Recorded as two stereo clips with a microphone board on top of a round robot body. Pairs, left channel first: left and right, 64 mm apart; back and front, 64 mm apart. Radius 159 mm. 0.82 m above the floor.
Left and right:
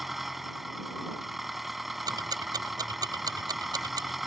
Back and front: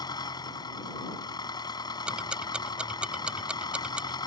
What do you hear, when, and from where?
0.0 s an engine running: 175° right
2.1 s ticking: 75° right